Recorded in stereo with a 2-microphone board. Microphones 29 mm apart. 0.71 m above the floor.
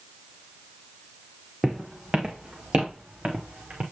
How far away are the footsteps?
About 2 m.